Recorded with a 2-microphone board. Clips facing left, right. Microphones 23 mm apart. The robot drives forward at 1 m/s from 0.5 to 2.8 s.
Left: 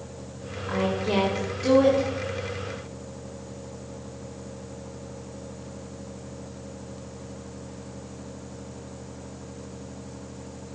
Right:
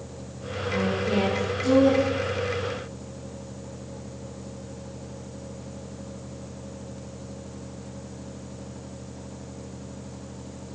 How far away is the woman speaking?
About 2.5 m.